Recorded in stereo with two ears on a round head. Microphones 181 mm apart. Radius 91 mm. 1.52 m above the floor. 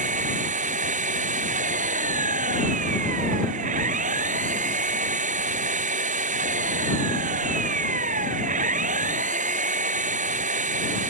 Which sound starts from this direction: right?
An engine running, at 0.0 s.